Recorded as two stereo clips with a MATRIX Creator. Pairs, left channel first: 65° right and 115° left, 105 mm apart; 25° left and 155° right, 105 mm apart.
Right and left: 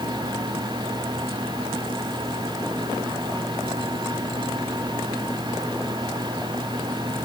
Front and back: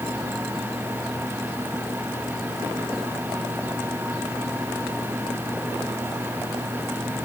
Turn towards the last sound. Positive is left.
No sound to turn to.